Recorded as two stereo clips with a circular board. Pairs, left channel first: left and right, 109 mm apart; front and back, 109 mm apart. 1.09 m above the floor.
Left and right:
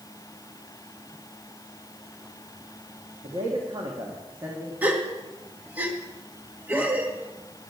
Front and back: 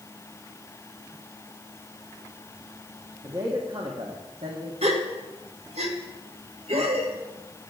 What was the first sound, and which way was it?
A man speaking, 125° right.